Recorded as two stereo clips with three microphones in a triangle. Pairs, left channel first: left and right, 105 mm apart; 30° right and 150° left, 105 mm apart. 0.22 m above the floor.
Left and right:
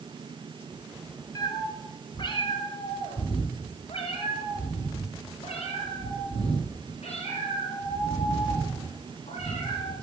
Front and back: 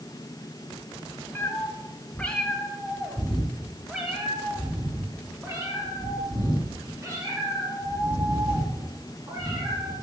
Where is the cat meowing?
40° left, 2 m; by 9.9 s 100° left, 6 m.